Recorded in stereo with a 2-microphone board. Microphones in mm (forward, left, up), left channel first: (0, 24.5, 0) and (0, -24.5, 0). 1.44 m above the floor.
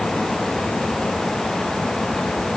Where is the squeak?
No squeak in this recording.